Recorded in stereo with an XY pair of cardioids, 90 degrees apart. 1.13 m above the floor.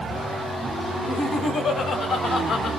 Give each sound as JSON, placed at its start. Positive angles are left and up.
{"t": 1.0, "sound": "laughter", "azimuth_deg": 60, "distance_m": 4.0}